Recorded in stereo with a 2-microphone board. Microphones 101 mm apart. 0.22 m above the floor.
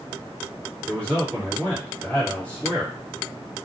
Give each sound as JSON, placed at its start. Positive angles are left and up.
{"t": 0.9, "sound": "a man speaking", "side_deg": 10, "distance_m": 1.4}